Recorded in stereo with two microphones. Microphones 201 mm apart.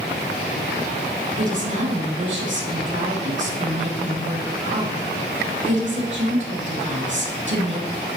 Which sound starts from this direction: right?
A woman speaking, at 1.4 s.